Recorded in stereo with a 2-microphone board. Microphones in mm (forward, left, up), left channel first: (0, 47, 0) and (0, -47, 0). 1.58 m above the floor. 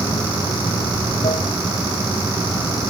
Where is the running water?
80° left.